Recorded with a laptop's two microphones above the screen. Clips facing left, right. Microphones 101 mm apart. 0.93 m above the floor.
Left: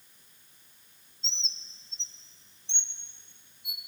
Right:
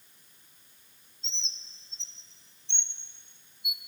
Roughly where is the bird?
Left.